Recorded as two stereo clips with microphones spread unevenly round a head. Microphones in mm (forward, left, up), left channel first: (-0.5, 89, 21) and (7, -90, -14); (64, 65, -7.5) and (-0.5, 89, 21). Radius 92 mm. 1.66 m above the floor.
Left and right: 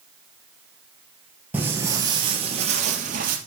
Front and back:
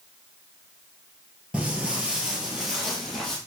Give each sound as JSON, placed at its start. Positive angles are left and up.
{"t": 1.5, "sound": "footsteps", "azimuth_deg": -175, "distance_m": 2.0}